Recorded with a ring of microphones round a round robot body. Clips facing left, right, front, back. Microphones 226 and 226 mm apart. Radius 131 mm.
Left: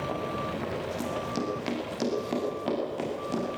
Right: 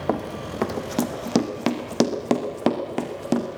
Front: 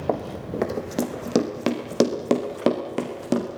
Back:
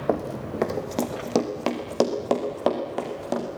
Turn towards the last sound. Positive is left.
turn(degrees=-55)